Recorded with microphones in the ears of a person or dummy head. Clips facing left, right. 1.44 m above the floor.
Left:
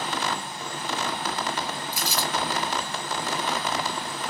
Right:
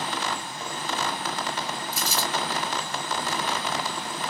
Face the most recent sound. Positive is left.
turn(degrees=20)  # may be behind; listen again after turning